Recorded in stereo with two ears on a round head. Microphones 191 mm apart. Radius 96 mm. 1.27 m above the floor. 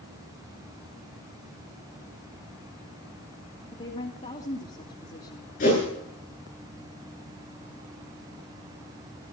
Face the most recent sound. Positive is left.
turn(degrees=40)  # may be behind; listen again after turning